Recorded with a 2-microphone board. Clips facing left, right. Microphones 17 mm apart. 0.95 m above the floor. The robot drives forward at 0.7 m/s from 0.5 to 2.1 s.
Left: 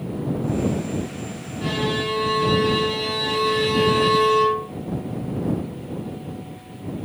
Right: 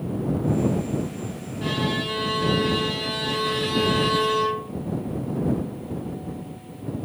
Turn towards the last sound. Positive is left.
turn(degrees=0)  # may be behind; listen again after turning